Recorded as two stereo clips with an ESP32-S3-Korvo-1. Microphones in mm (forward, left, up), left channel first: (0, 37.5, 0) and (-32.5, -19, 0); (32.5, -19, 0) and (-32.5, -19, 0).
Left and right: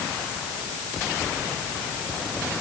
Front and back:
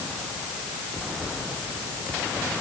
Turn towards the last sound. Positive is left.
No sound to turn to.